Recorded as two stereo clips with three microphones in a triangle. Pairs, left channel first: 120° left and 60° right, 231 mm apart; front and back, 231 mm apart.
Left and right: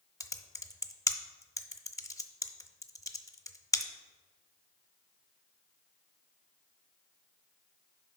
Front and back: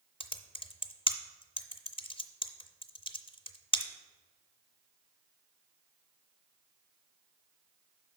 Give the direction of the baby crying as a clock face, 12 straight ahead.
No baby crying in this recording.